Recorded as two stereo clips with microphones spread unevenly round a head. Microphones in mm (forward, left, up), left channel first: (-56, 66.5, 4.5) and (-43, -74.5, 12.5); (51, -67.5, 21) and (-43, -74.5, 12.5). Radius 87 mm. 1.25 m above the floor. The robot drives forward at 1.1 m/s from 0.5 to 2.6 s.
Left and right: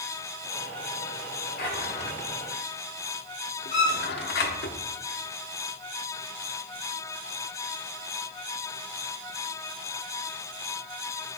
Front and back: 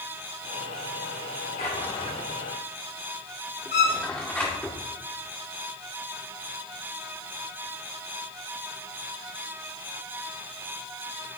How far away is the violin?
About 1.9 m.